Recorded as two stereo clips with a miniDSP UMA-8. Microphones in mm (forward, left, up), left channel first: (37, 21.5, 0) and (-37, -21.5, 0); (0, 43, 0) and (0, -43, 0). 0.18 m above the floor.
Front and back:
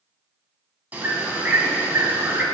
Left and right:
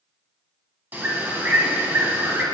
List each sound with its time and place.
0.9 s a bird: 115° right, 1.7 m